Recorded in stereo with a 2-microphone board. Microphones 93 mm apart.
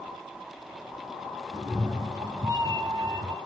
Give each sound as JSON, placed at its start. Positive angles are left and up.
{"t": 1.5, "sound": "a cat meowing", "side_deg": -45, "distance_m": 1.5}